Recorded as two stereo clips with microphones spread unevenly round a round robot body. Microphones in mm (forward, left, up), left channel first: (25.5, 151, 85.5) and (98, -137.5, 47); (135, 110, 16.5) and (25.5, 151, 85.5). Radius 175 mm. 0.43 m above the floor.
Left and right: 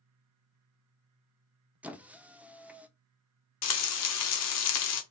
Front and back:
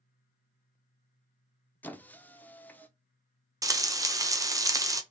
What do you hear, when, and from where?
1.8 s a squeak: straight ahead, 0.6 m
3.6 s frying: 75° left, 0.9 m